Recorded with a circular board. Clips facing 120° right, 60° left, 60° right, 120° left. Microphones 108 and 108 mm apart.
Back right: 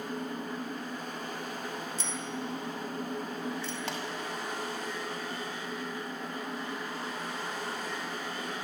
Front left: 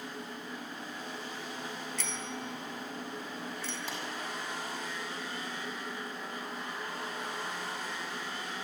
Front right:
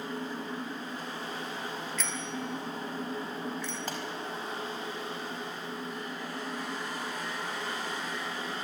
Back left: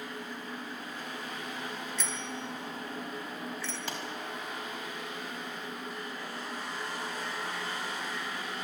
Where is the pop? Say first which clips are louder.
Back right 4 dB, front right 1 dB; 105° right, 4.5 m.